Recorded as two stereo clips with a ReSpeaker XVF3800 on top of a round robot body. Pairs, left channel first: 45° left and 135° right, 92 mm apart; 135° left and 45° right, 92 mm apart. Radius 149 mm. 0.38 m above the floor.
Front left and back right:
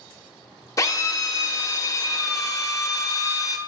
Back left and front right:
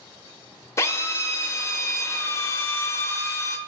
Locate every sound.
0.8 s a drill: 85° left, 0.9 m